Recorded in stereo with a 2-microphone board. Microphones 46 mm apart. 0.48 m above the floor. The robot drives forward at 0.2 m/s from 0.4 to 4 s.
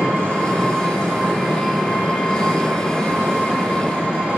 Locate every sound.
0.0 s an engine running: 50° right (ahead or behind), 3.5 m; by 4.4 s 40° right (ahead or behind), 4 m